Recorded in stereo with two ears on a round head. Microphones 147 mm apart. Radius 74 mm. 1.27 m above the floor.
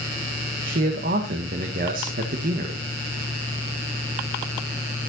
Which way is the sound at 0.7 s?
55° right (ahead or behind).